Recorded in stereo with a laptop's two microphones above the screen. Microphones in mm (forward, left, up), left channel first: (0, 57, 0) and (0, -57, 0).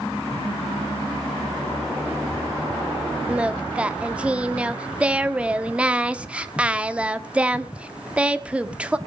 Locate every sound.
3.3 s singing: 10° right (ahead or behind), 1.1 m